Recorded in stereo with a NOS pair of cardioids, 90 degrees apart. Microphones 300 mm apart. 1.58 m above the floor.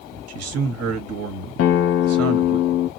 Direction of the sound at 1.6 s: 55° left.